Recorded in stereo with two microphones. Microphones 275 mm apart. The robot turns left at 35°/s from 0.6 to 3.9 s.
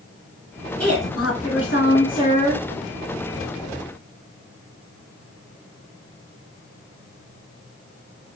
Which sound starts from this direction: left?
A woman speaking, at 0.8 s.